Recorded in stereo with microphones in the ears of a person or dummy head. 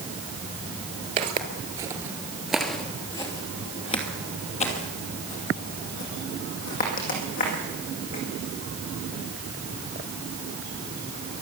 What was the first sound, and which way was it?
Footsteps, 35° right (ahead or behind).